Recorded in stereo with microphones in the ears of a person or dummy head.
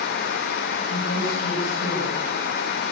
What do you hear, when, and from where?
0.9 s a woman speaking: 70° left (ahead or behind), 9.5 m